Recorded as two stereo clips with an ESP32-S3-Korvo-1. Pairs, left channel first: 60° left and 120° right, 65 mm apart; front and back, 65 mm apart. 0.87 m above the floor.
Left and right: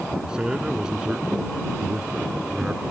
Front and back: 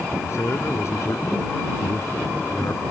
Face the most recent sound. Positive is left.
turn(degrees=-45)